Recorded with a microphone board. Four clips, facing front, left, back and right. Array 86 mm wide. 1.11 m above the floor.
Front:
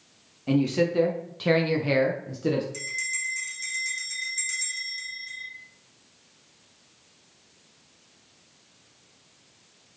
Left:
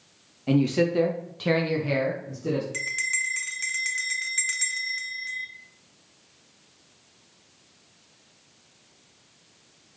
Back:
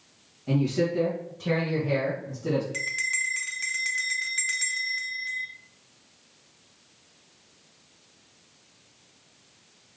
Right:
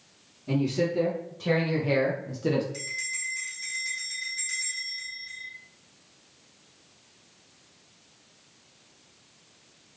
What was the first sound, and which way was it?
A man speaking, 65° left.